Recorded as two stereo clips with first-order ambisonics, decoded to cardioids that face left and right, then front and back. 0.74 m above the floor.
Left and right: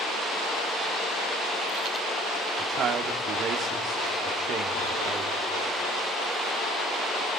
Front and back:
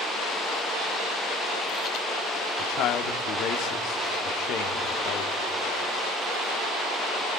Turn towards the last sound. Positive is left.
turn(degrees=-35)